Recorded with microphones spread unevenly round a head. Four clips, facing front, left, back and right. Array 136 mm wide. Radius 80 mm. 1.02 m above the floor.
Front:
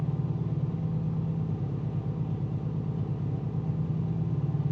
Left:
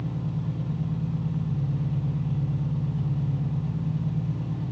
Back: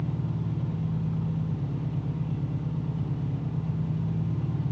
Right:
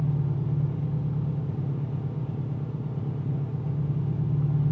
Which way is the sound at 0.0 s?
55° right.